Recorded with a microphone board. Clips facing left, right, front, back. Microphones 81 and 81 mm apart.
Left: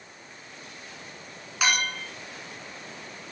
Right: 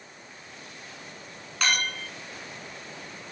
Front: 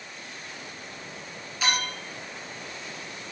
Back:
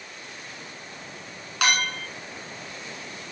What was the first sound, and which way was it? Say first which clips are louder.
A clink: left 1 dB, back 4 dB; 170° left.